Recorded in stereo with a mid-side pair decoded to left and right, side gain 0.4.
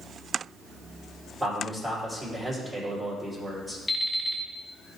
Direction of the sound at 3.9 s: 10° left.